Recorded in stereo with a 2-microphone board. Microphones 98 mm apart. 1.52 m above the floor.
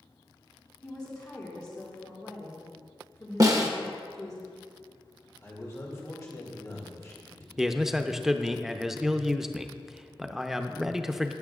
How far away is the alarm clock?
I don't hear an alarm clock.